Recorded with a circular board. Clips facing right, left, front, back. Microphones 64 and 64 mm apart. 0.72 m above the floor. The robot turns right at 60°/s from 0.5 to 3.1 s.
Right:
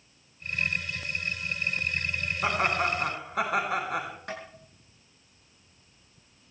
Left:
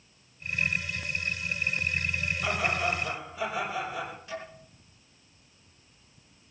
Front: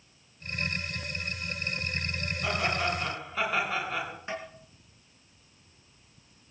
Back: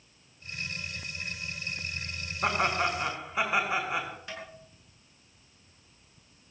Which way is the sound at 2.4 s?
145° right.